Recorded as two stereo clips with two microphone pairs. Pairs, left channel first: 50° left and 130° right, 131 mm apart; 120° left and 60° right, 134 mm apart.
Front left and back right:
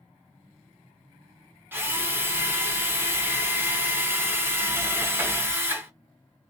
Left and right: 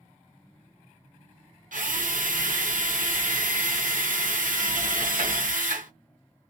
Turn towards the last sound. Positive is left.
turn(degrees=-60)